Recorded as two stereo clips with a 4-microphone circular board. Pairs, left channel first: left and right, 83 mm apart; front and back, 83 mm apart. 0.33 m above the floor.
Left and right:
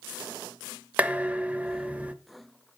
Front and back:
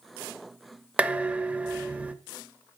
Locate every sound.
1.0 s dishes clattering: 130° right, 0.5 m